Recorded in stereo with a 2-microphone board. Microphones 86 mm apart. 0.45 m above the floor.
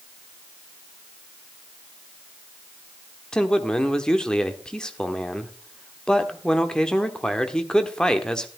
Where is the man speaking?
10° left (ahead or behind), 1.1 m.